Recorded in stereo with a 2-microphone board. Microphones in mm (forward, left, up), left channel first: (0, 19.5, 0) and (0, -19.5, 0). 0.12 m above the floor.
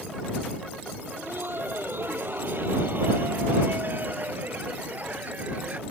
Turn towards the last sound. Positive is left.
turn(degrees=-45)  # may be behind; listen again after turning